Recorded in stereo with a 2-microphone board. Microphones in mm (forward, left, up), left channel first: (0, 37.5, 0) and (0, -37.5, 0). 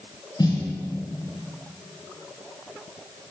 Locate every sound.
0.4 s a snare drum: 60° left (ahead or behind), 6.5 m